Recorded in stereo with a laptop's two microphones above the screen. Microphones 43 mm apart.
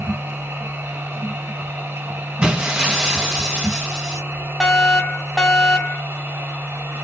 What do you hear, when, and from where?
0.0 s a machine running: 75° right (ahead or behind), 1.4 m
2.4 s breaking glass: 20° right (ahead or behind), 1.6 m
4.6 s a fire alarm: 5° left (ahead or behind), 1.6 m